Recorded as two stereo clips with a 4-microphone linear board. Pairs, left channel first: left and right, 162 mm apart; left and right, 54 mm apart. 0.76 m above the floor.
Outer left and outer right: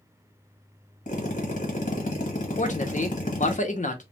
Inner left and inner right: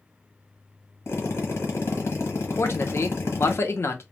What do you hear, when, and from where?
1.1 s a drill: 50° left (ahead or behind), 1.2 m
2.6 s a man speaking: 50° left (ahead or behind), 0.7 m